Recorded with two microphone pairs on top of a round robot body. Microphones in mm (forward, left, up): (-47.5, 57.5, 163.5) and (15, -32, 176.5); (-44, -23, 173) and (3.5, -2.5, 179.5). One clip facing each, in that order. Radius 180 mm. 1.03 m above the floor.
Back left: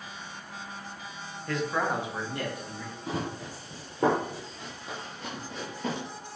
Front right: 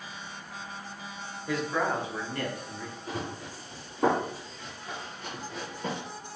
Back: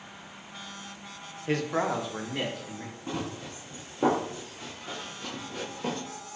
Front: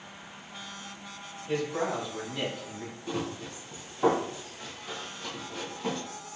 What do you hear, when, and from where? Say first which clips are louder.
1.5 s a man speaking: even, back 2 dB; 140° right, 0.8 m; by 3.0 s 170° right, 2.5 m
3.1 s running footsteps: back left 4 dB, front 1 dB; 160° left, 1.7 m; by 6.0 s 105° right, 1.1 m